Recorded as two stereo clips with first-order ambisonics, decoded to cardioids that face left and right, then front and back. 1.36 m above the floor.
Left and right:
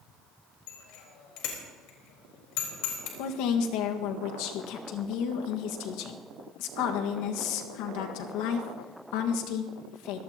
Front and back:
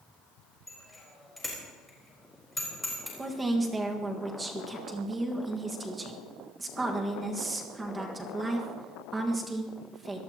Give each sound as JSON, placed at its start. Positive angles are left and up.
{"t": 0.7, "sound": "a bicycle bell", "azimuth_deg": 85, "distance_m": 4.5}
{"t": 3.2, "sound": "a woman speaking", "azimuth_deg": 105, "distance_m": 1.6}